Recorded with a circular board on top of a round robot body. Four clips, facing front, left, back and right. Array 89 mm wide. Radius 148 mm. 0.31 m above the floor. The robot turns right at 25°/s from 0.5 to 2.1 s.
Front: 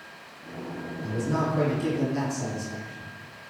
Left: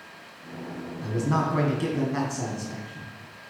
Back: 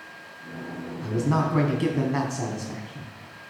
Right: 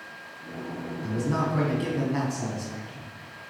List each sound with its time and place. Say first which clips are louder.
1.0 s a man speaking: left 2 dB, back 3 dB; 145° left, 4.5 m; by 3.1 s 175° left, 4.5 m